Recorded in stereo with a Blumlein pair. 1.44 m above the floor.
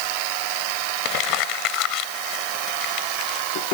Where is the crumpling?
40° left.